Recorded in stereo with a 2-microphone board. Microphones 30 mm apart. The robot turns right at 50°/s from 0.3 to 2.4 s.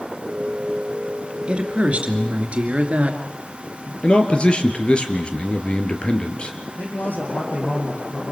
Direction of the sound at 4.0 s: 40° left (ahead or behind).